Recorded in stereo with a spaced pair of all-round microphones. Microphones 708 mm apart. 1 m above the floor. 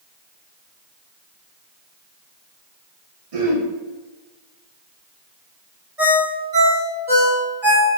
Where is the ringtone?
55° right (ahead or behind), 1.3 m.